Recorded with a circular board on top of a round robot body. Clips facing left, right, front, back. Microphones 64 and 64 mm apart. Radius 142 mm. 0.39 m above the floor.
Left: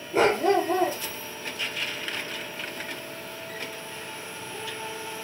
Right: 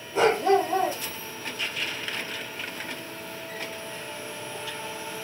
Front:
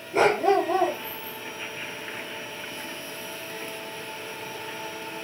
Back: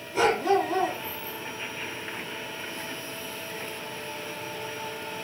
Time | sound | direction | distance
0.1 | a dog barking | 50° left | 4 m